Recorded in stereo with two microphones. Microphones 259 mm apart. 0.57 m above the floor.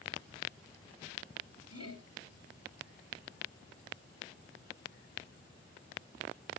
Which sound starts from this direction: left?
Laughter, at 1.7 s.